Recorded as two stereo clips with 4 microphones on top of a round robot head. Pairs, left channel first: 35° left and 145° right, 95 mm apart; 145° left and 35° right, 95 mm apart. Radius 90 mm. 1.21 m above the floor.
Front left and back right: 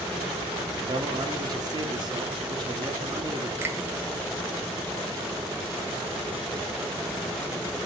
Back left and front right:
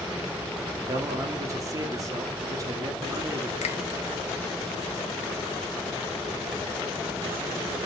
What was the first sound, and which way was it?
A man speaking, 95° right.